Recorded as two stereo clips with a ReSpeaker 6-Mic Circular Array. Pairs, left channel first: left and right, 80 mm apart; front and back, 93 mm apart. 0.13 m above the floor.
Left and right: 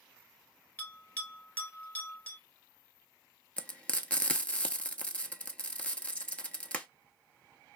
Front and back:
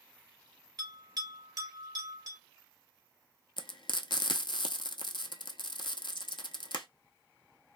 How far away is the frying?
About 0.6 m.